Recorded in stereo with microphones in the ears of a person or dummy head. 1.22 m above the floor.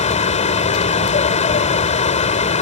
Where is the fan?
40° left (ahead or behind).